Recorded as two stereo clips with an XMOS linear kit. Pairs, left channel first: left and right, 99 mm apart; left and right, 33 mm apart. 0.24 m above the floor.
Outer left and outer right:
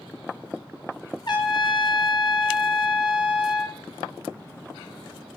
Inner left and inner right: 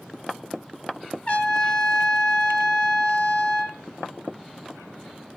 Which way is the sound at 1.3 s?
50° left (ahead or behind).